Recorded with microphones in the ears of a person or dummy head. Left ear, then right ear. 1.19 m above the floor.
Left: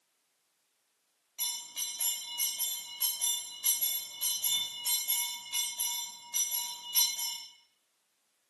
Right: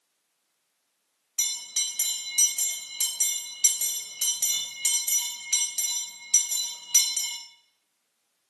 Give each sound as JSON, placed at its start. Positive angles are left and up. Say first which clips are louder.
{"t": 1.4, "sound": "a bell", "louder": "right 9 dB", "side_deg": -50, "distance_m": 1.8}